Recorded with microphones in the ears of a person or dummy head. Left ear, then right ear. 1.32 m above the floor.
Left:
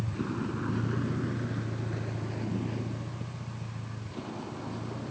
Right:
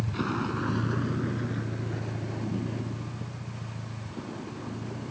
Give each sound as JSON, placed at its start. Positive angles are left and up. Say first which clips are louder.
{"t": 0.0, "sound": "a vehicle", "louder": "right 4 dB", "side_deg": -45}